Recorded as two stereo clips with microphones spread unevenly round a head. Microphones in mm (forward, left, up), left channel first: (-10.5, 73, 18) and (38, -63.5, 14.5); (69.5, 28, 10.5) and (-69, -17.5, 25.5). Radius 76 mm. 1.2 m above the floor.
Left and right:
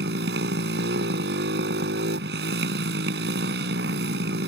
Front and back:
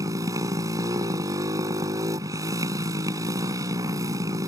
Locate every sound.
0.0 s a motorcycle: 95° right